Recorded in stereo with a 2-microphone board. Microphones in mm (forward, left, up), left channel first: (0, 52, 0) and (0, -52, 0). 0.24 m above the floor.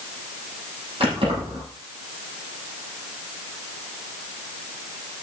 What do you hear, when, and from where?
1.0 s keys jangling: 60° right (ahead or behind), 7.5 m